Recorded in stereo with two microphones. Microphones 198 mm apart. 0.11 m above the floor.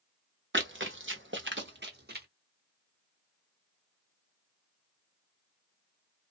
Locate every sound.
0.5 s running footsteps: 75° right (ahead or behind), 0.9 m; by 2.3 s 55° right (ahead or behind), 1.2 m